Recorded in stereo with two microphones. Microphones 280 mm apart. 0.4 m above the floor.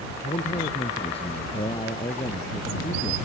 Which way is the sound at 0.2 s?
25° left (ahead or behind).